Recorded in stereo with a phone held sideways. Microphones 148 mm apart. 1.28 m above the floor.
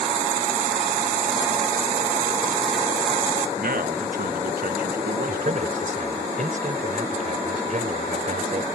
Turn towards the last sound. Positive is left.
turn(degrees=-60)  # may be behind; listen again after turning